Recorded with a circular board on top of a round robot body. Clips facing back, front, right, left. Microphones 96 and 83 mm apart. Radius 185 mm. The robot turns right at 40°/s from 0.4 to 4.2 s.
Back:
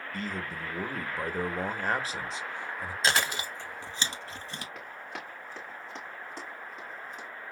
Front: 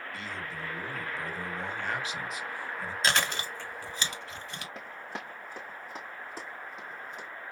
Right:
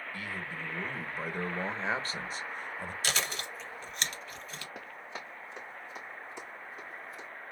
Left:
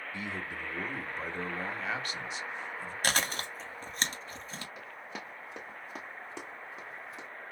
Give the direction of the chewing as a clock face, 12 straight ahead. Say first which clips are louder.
Back 1 dB, left 4 dB; 9 o'clock.